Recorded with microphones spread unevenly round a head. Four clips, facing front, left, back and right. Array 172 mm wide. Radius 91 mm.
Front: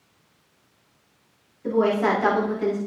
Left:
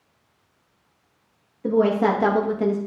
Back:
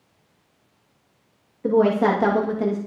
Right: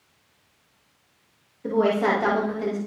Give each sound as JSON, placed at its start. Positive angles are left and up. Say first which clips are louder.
{"t": 1.6, "sound": "a woman speaking", "louder": "left 2 dB, back 3 dB", "azimuth_deg": 155, "distance_m": 2.0}